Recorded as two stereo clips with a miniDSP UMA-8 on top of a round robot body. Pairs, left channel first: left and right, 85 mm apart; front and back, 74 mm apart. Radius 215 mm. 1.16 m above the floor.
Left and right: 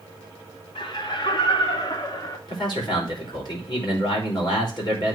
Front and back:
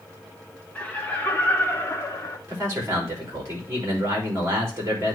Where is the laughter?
75° left, 2 m; by 2.4 s 50° left, 1.8 m.